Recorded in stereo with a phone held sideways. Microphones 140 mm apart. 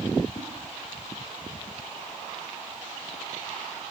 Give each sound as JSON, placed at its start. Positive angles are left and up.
{"t": 0.3, "sound": "a whoosh", "side_deg": 30, "distance_m": 1.2}